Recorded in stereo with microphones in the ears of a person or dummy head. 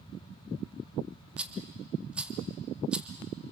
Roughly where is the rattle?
Centre.